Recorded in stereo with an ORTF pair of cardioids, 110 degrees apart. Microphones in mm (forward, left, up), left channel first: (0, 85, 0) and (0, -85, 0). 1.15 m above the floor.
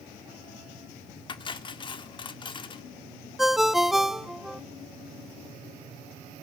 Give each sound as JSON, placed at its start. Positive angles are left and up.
{"t": 1.3, "sound": "cutlery clinking", "azimuth_deg": 30, "distance_m": 1.5}
{"t": 3.4, "sound": "a ringtone", "azimuth_deg": 0, "distance_m": 0.9}